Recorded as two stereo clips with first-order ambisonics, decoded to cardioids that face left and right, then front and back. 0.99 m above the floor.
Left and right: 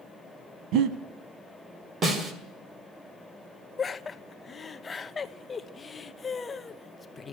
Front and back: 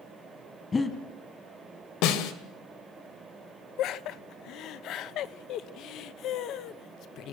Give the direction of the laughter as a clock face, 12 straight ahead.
11 o'clock.